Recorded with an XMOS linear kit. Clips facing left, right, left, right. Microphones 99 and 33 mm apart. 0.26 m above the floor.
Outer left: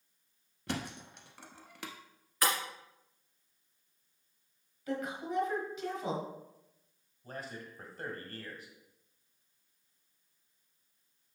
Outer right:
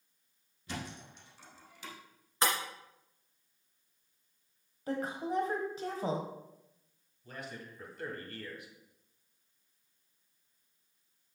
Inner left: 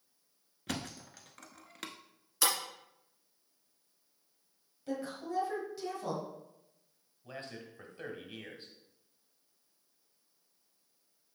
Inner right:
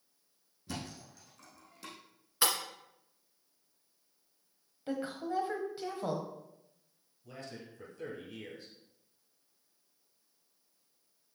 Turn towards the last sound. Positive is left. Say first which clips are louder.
# outer left 1 dB, inner left 1 dB
turn(degrees=40)  # may be behind; listen again after turning